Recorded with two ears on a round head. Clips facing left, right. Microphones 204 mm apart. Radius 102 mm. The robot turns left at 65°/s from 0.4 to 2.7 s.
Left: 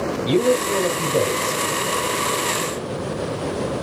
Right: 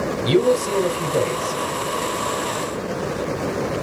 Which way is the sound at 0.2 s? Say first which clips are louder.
Right 1 dB; 145° right.